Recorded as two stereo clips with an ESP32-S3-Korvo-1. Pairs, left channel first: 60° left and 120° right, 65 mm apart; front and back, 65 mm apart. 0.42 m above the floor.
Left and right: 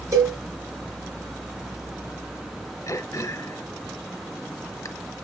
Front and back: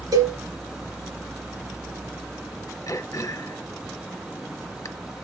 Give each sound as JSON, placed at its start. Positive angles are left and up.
{"t": 0.1, "sound": "a cowbell", "azimuth_deg": -160, "distance_m": 3.5}
{"t": 2.9, "sound": "throat clearing", "azimuth_deg": 30, "distance_m": 0.8}